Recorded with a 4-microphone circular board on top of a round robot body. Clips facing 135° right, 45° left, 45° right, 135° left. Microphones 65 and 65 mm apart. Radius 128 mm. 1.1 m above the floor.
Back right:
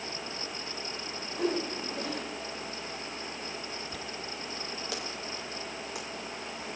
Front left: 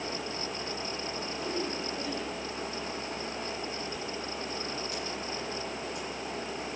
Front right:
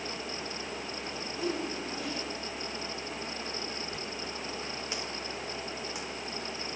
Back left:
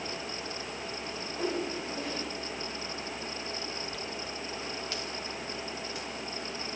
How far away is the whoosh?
About 4.5 m.